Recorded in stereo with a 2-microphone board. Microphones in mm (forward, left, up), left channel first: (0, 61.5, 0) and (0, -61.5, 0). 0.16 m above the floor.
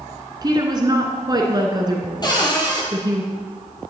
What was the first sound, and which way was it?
A woman speaking, 30° right (ahead or behind).